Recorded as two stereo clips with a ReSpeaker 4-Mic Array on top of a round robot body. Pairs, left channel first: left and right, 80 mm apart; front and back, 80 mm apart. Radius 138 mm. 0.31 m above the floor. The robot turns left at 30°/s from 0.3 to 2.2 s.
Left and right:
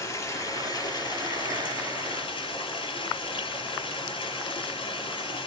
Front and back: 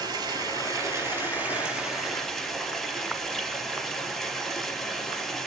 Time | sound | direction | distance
0.0 | running water | 140° left | 4 m